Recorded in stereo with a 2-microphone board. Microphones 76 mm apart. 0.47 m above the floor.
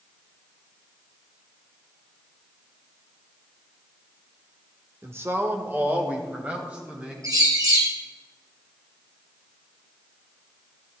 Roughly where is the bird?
Right.